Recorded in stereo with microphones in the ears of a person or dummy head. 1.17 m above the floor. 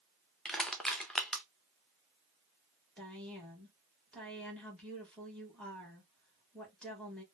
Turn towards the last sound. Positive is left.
turn(degrees=0)  # may be behind; listen again after turning